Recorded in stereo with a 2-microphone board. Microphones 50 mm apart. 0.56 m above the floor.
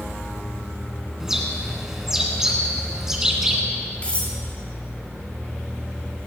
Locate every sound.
1.2 s a bird: 10° right (ahead or behind), 2.5 m
4.0 s cutlery clinking: 25° left (ahead or behind), 3.5 m